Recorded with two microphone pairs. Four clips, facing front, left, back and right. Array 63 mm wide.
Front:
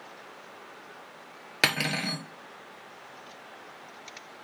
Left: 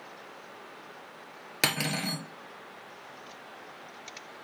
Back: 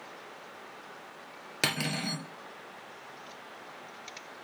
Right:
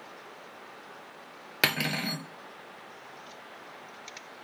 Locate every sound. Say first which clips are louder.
1.6 s cutlery clinking: right 2 dB, front 5 dB; 25° right, 1.3 m